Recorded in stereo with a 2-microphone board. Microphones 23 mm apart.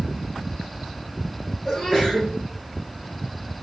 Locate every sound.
1.6 s a sneeze: 35° left (ahead or behind), 2.0 m